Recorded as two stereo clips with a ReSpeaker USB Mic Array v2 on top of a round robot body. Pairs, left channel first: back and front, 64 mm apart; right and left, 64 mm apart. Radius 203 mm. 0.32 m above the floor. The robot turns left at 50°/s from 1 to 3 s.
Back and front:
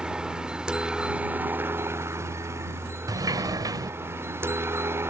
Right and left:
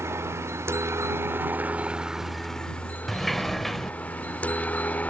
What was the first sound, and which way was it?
A helicopter, 70° left.